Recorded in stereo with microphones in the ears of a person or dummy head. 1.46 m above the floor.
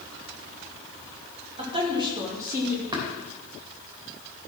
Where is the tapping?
20° right (ahead or behind), 3 m.